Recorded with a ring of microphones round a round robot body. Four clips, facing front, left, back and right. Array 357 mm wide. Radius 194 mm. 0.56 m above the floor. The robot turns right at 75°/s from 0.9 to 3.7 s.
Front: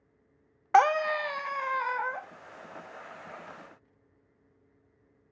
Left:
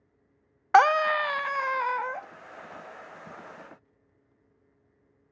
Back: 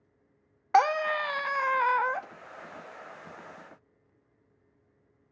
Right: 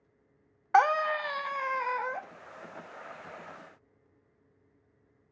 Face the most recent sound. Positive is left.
turn(degrees=-65)